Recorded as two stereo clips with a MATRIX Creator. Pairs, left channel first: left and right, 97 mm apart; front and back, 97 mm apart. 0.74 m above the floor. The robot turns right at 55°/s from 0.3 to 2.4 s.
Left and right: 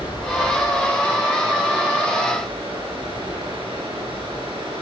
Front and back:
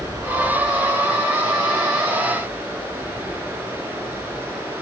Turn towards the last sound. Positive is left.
turn(degrees=-115)